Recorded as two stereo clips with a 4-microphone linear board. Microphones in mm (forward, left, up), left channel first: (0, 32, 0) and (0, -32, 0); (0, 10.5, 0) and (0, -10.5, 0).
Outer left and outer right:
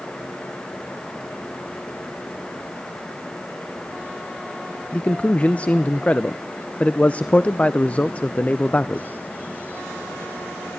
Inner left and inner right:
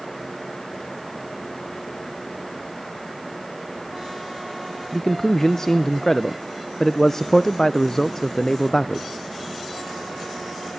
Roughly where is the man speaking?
Left.